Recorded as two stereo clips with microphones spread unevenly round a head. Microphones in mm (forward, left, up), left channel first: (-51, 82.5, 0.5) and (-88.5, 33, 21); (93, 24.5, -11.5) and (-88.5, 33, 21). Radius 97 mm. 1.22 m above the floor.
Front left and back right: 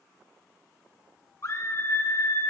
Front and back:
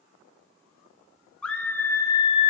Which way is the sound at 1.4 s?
80° left.